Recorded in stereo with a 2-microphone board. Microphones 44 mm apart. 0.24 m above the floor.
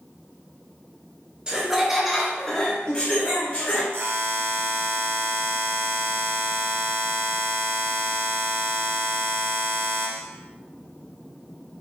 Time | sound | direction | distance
1.5 | laughter | 20° right (ahead or behind) | 1.0 m
3.9 | a buzzer | 65° right (ahead or behind) | 0.7 m